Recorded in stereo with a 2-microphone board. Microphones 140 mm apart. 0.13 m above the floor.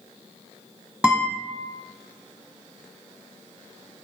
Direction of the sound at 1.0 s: 10° right (ahead or behind).